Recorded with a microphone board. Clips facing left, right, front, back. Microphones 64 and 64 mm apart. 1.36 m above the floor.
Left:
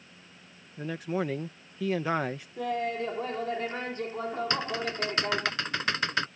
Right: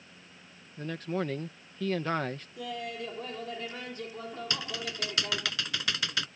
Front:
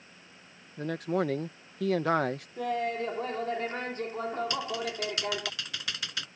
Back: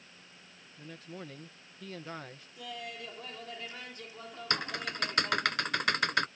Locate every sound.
0.8 s a man speaking: 10° left
2.6 s laughter: 40° left
4.5 s typing on a keyboard: 140° left